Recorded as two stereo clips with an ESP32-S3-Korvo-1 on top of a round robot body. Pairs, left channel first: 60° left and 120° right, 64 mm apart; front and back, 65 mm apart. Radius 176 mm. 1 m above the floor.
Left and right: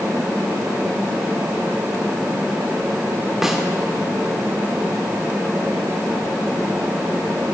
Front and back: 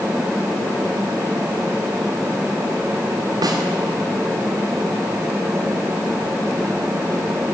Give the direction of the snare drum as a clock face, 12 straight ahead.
7 o'clock.